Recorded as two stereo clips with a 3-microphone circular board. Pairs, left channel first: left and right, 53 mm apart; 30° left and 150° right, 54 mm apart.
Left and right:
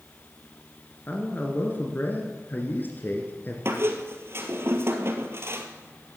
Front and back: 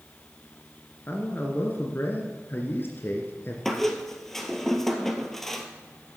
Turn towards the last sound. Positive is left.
turn(degrees=-55)